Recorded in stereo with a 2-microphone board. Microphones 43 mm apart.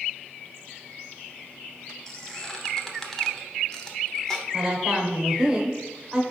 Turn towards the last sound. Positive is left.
turn(degrees=-15)  # may be behind; listen again after turning